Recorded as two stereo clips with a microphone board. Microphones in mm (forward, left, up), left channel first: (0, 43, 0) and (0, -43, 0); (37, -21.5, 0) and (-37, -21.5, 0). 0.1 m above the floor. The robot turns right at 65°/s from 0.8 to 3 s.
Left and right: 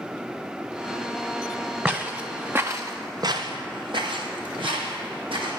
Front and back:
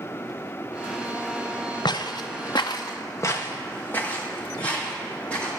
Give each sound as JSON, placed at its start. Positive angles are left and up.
{"t": 1.9, "sound": "footsteps", "azimuth_deg": -15, "distance_m": 1.0}